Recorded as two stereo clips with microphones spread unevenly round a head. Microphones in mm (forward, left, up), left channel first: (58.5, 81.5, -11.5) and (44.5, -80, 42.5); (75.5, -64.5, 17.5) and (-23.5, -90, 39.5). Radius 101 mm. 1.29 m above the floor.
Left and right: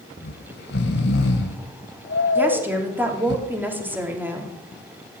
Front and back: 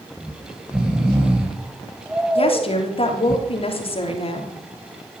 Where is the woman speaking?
15° right, 3 m.